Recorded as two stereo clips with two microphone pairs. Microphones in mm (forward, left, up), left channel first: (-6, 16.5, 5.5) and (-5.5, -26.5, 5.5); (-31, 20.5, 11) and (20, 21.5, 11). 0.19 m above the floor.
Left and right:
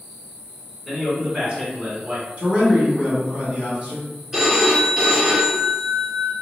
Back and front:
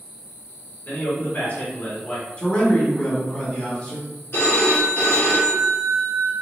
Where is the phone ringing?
165° right, 1.8 m.